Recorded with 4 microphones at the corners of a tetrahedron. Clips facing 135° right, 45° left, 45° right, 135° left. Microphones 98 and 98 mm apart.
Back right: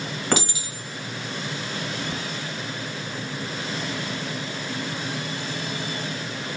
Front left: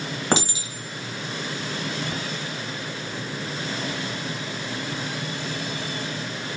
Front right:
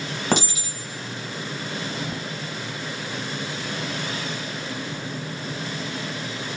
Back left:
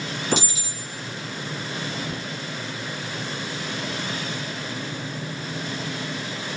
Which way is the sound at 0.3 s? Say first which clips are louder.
Front left 2 dB, front right 3 dB; 20° right.